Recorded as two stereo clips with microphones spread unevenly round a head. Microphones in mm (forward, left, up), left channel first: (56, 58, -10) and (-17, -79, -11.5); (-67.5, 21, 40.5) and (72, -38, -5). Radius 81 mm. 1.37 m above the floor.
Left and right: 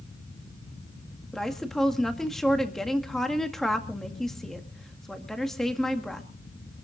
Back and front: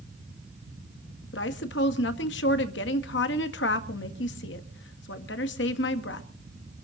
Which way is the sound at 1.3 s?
150° left.